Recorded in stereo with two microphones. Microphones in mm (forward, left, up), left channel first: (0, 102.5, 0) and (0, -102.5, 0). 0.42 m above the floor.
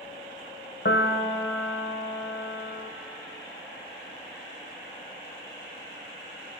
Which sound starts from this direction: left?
A piano, at 0.8 s.